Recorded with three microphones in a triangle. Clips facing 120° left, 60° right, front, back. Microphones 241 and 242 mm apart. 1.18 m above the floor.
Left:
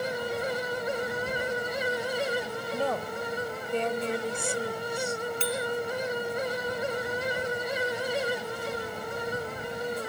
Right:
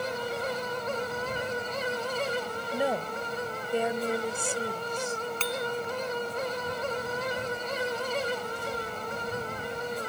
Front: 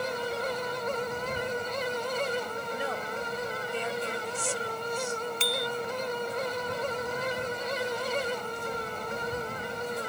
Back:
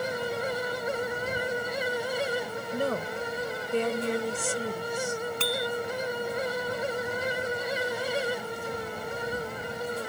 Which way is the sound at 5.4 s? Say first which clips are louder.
Left 1 dB, back 3 dB; 160° right.